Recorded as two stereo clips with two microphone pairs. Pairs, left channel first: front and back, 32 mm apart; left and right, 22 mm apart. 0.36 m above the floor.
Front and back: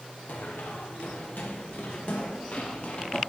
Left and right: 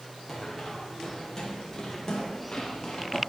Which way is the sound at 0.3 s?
10° left.